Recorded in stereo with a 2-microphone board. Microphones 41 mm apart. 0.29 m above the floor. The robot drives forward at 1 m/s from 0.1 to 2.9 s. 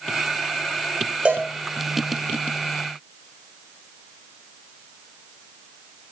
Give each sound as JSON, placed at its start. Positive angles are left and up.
{"t": 1.2, "sound": "a cowbell", "side_deg": -35, "distance_m": 5.5}